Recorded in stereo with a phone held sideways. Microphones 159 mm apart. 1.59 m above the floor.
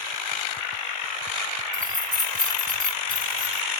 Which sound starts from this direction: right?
Keys jangling, at 1.7 s.